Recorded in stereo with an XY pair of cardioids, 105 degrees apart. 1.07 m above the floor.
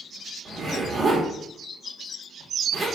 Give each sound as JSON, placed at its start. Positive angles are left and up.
{"t": 0.5, "sound": "a zipper", "azimuth_deg": -40, "distance_m": 1.5}